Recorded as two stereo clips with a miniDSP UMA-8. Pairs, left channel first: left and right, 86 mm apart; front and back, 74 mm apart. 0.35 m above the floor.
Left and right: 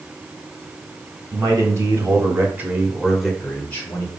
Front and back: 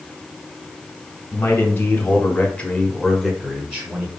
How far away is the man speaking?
About 1.4 m.